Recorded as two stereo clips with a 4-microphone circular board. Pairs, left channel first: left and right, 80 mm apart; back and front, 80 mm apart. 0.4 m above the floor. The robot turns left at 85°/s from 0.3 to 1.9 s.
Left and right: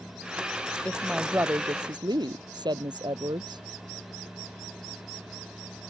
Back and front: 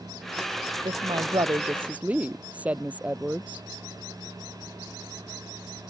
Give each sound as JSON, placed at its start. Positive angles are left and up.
{"t": 0.8, "sound": "a woman speaking", "azimuth_deg": 15}